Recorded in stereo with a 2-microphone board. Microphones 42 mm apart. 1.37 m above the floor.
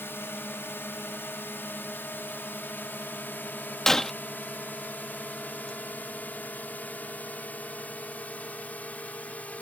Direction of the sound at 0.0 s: 60° left (ahead or behind).